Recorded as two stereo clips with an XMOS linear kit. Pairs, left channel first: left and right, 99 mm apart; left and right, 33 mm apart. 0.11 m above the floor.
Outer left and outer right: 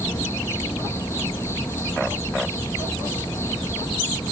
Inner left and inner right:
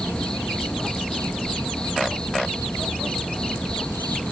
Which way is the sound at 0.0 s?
25° left (ahead or behind).